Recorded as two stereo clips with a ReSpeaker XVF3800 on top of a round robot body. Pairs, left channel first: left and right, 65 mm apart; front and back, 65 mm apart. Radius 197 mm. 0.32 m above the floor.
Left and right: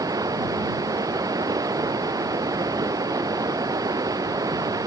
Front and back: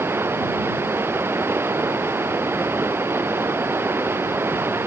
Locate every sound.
0.0 s running water: 125° right